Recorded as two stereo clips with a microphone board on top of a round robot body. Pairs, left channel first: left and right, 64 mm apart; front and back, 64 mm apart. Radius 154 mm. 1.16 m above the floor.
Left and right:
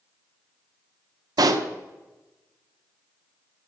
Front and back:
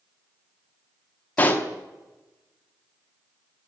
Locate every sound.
1.4 s a pop: 65° right, 0.8 m